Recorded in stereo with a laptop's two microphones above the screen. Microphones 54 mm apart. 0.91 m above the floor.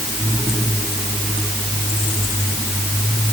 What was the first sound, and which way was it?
Only background noise.